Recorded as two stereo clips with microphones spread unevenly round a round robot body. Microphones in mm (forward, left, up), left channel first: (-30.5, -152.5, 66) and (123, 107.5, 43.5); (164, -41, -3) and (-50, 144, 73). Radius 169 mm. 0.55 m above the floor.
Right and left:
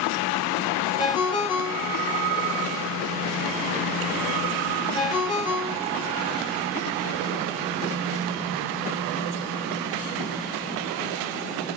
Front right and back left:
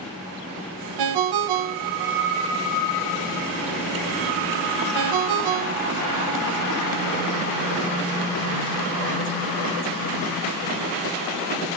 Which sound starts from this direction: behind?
A ringtone, at 1.0 s.